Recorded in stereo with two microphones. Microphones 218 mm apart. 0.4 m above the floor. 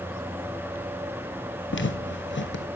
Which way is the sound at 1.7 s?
60° left (ahead or behind).